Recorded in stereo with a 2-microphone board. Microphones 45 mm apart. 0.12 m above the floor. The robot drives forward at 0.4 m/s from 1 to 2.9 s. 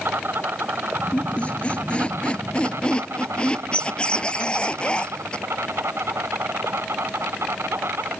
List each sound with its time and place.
0.0 s an insect: 55° right (ahead or behind); by 8.2 s 70° right (ahead or behind)
1.1 s a squeak: 30° left (ahead or behind); by 5.5 s 20° left (ahead or behind)